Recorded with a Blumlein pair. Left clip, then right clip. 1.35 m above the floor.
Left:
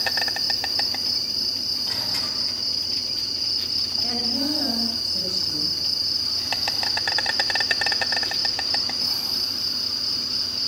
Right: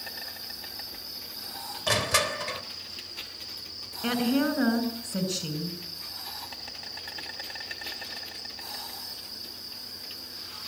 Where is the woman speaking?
65° right, 7 m.